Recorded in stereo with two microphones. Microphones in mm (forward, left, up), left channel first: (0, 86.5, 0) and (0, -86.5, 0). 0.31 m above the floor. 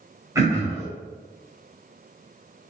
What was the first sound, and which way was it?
Throat clearing, 20° right (ahead or behind).